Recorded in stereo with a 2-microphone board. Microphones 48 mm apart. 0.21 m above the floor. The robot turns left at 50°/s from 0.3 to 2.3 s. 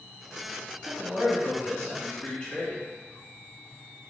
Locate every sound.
0.8 s a man speaking: 10° right (ahead or behind), 1.5 m; by 2.8 s 20° left (ahead or behind), 1.5 m